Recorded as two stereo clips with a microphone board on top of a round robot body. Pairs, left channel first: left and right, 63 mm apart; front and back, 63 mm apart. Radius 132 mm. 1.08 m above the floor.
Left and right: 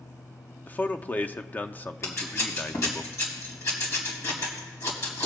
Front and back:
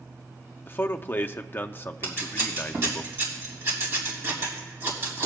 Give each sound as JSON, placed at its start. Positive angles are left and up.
{"t": 0.7, "sound": "a man speaking", "azimuth_deg": 40, "distance_m": 0.6}
{"t": 2.0, "sound": "scissors", "azimuth_deg": 130, "distance_m": 2.5}